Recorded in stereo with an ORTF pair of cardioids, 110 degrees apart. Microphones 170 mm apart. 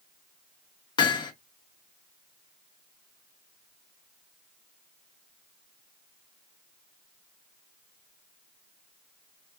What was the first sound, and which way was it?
Hammering, 25° left.